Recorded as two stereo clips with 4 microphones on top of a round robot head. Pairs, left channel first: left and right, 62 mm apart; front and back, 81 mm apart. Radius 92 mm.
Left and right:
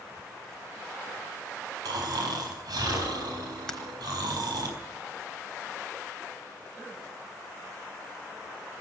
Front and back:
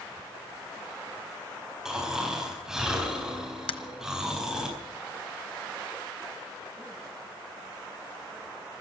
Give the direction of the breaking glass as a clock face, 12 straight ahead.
12 o'clock.